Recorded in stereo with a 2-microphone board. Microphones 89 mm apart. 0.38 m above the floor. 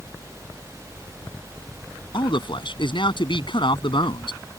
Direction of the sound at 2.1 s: 65° left (ahead or behind).